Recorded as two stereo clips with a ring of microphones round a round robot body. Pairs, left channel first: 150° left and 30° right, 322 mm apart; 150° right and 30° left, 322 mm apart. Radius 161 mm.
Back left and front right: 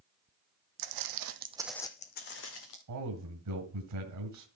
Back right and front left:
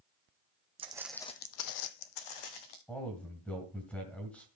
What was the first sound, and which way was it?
Footsteps, 40° right.